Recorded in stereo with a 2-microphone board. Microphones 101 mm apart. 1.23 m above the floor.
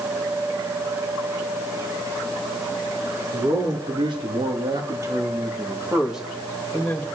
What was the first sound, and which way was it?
A man speaking, 65° right (ahead or behind).